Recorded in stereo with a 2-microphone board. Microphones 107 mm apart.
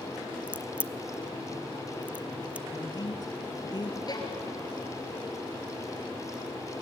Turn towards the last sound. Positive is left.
turn(degrees=40)  # may be behind; listen again after turning